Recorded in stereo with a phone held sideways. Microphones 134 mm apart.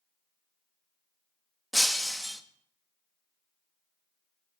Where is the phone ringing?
I don't hear a phone ringing.